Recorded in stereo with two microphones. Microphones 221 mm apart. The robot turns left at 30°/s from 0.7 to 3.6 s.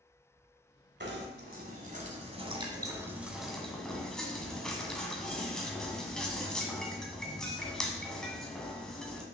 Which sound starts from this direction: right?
Knocking, at 1.0 s.